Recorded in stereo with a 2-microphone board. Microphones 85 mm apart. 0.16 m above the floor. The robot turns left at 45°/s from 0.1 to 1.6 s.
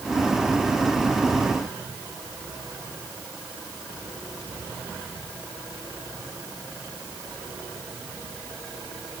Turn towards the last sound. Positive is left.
No sound to turn to.